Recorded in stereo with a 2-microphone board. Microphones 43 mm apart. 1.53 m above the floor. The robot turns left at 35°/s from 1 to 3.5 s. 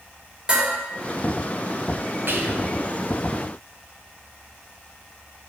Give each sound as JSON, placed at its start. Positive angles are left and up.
{"t": 0.5, "sound": "dishes clattering", "side_deg": -20, "distance_m": 3.0}
{"t": 2.3, "sound": "whispering", "side_deg": -55, "distance_m": 1.0}